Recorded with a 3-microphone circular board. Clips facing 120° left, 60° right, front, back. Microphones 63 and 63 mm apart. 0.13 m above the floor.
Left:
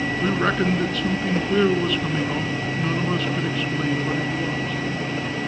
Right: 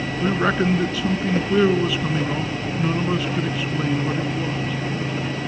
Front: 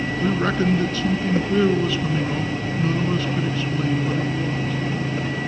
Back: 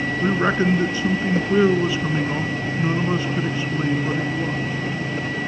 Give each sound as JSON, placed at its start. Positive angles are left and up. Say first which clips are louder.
{"t": 0.2, "sound": "a man speaking", "louder": "right 2 dB, back 2 dB", "azimuth_deg": -140, "distance_m": 1.2}